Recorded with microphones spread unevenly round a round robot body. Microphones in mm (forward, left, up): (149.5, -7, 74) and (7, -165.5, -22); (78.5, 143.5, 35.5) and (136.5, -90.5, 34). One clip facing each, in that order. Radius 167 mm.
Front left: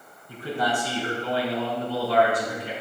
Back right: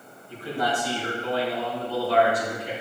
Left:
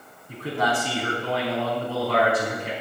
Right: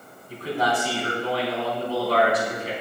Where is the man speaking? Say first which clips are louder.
Front left 1 dB, right 1 dB; 70° left, 4 m.